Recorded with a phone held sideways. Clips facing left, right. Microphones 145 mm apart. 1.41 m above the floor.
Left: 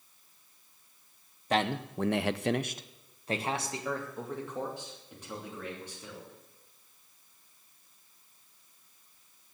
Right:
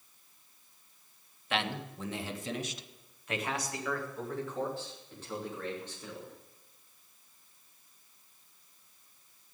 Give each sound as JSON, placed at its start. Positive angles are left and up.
{"t": 1.5, "sound": "a man speaking", "side_deg": 40, "distance_m": 1.1}